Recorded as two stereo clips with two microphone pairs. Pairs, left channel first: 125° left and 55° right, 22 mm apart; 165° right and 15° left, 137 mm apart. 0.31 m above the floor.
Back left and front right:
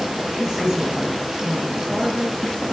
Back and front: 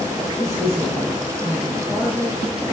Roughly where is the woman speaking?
Ahead right.